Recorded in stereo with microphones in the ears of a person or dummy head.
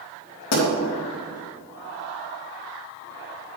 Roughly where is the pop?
Left.